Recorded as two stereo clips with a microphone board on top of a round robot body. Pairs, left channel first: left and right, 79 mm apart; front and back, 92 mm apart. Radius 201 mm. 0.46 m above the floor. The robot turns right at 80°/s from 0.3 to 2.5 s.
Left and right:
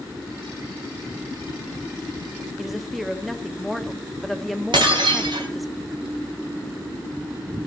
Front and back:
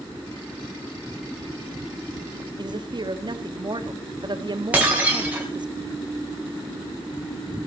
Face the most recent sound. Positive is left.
turn(degrees=-105)